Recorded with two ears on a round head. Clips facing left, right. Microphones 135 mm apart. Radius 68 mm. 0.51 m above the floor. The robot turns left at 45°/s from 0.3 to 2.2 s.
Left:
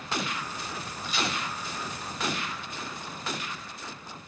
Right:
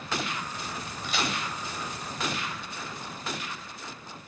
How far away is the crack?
About 2.5 m.